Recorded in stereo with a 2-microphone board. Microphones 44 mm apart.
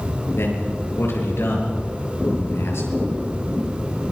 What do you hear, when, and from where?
0.4 s a man speaking: 75° left (ahead or behind), 6.5 m